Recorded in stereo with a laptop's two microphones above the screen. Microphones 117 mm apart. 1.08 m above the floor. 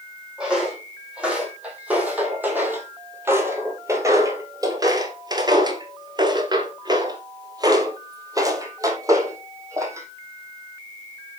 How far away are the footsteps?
About 3 m.